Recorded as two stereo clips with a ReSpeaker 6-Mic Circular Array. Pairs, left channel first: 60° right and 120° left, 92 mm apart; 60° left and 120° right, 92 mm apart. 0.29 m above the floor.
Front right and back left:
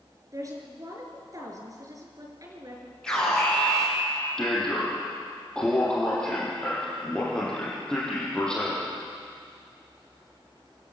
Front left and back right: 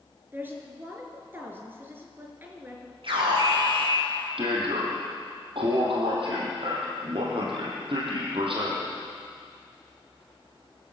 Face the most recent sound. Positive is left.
turn(degrees=-140)